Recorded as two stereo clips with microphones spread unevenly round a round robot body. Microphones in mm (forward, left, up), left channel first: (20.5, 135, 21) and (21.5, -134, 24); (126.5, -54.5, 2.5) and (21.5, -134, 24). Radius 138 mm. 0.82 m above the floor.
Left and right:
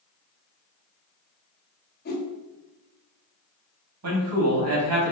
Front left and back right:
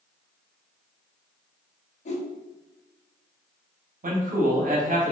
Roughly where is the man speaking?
Behind right.